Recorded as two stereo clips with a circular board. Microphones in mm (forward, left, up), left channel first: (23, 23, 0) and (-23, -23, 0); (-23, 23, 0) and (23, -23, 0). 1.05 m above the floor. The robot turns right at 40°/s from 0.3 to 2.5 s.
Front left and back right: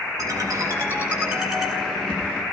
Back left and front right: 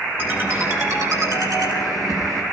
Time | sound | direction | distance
0.2 | a ringtone | 105° right | 10 m